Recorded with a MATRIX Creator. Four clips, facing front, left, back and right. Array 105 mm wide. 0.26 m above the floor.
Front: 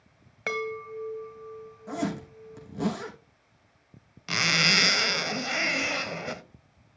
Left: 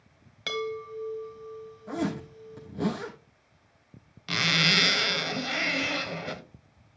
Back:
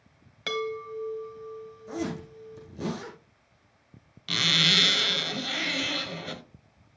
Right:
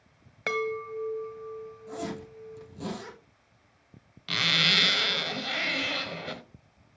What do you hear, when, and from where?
0.5 s a chime: 50° right, 1.4 m
1.9 s a zipper: 30° left, 6.5 m
4.3 s a zipper: 15° left, 1.0 m